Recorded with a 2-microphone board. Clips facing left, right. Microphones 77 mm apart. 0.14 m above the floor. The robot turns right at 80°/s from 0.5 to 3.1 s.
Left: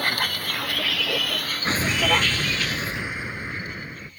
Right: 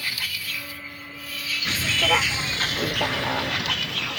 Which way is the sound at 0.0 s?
50° left (ahead or behind).